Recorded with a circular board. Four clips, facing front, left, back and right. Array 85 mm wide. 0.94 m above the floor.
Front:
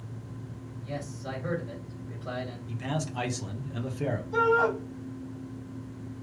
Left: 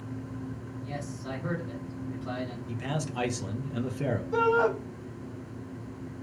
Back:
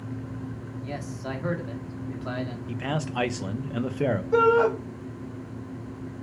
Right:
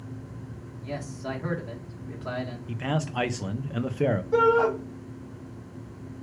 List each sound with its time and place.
0.8 s a man speaking: 140° right, 2 m
2.7 s a man speaking: 140° right, 0.8 m
4.3 s a shout: 150° right, 4 m